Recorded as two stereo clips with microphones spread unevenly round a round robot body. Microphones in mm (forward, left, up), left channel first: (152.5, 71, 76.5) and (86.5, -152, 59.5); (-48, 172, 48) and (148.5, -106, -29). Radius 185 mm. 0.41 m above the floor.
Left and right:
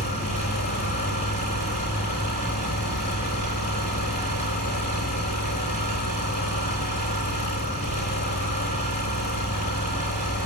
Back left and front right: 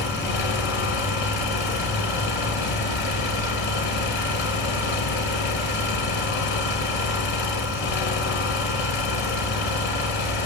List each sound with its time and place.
0.0 s an engine running: 145° left, 7 m